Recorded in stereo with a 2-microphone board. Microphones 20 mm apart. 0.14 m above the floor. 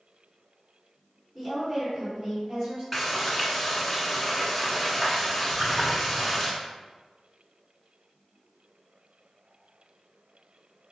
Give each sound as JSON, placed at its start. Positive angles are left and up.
{"t": 1.4, "sound": "a woman speaking", "side_deg": -15, "distance_m": 1.6}
{"t": 2.9, "sound": "frying", "side_deg": 0, "distance_m": 1.5}
{"t": 5.5, "sound": "a splash", "side_deg": -35, "distance_m": 0.9}